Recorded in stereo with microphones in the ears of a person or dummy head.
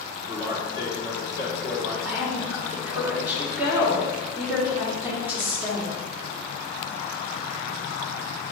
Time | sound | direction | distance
0.3 | a man speaking | 20° right (ahead or behind) | 1.1 m
2.0 | a woman speaking | 10° right (ahead or behind) | 1.1 m